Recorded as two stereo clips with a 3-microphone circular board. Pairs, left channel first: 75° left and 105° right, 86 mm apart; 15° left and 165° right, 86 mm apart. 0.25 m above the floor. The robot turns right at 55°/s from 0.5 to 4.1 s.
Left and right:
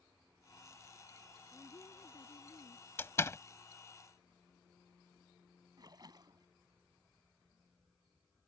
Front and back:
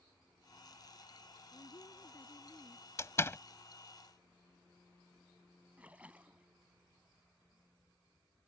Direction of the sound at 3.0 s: 35° left.